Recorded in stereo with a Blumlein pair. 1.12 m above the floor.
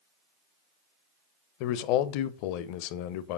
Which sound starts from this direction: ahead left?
A man speaking, at 1.6 s.